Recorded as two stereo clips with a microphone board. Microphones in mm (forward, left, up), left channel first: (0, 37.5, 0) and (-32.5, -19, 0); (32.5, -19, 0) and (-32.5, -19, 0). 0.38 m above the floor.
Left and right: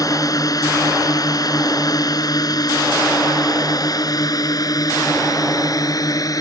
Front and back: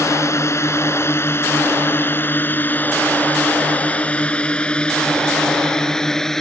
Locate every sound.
0.0 s a drone: 40° left; by 6.4 s 80° left